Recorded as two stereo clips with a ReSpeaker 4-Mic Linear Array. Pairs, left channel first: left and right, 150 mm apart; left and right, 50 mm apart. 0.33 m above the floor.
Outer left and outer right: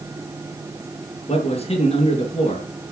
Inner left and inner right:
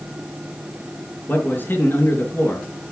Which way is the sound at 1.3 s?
40° left (ahead or behind).